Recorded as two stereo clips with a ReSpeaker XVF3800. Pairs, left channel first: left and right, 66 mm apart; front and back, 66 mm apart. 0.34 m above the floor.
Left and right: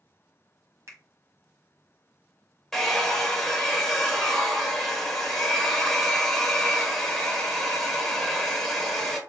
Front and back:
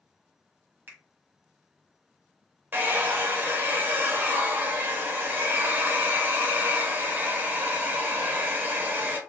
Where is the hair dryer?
170° left, 0.9 m.